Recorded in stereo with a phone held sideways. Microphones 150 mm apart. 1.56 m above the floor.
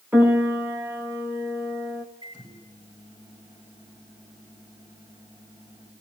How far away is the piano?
About 3 m.